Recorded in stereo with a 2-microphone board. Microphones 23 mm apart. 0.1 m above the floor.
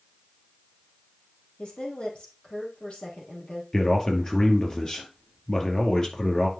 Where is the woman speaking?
60° left (ahead or behind), 3.5 m.